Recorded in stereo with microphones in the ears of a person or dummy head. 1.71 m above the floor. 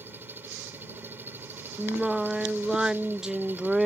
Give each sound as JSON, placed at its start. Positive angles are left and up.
{"t": 0.0, "sound": "an engine running", "side_deg": -15}
{"t": 1.8, "sound": "singing", "side_deg": 5}